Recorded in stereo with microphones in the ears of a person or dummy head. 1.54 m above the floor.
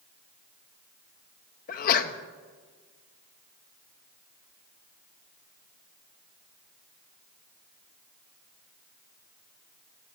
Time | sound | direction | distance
1.7 | a sneeze | 50° left (ahead or behind) | 0.9 m